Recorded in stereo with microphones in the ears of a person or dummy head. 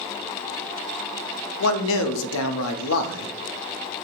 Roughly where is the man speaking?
Left.